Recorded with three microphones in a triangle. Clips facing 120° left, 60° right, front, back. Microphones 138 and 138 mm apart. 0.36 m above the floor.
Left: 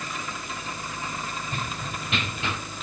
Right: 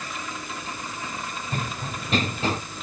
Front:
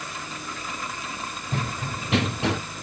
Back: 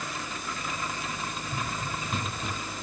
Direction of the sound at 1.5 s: 10° right.